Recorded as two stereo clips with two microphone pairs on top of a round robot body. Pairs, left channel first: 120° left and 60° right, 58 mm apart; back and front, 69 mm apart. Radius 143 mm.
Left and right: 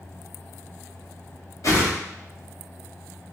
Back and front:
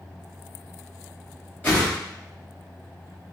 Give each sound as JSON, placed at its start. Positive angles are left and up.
{"t": 1.6, "sound": "a whoosh", "azimuth_deg": 130, "distance_m": 1.9}